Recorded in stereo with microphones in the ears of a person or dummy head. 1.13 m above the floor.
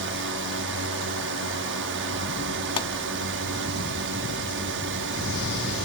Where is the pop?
25° left (ahead or behind).